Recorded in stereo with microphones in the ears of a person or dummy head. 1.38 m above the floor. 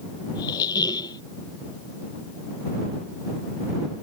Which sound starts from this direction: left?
A squeak, at 0.3 s.